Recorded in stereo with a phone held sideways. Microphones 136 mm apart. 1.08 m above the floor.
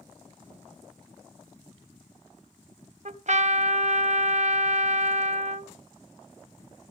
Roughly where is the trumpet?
Right.